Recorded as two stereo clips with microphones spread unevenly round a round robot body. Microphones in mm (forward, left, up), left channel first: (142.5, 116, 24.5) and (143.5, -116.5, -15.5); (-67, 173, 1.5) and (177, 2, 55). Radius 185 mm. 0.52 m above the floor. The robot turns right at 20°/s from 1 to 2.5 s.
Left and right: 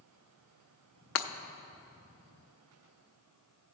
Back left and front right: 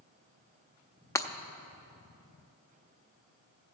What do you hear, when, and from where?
1.1 s breaking glass: 70° left, 0.6 m; by 1.3 s 75° left, 0.6 m